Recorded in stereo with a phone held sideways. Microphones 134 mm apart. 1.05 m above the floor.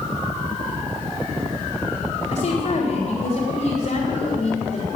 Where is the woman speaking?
65° left (ahead or behind), 4 m.